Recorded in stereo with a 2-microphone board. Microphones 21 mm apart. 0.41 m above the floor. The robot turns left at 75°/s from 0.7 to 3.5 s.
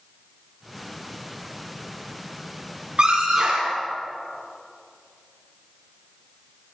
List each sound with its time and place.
3.0 s a scream: 70° right, 6 m; by 3.8 s 110° right, 6 m